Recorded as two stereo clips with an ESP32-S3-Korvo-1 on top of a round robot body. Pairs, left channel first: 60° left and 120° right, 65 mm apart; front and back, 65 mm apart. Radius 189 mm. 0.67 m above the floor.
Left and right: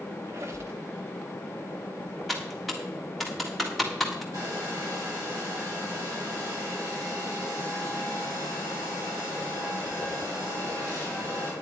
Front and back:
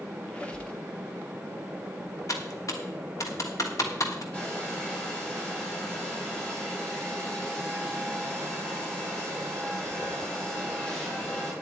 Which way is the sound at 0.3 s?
70° right.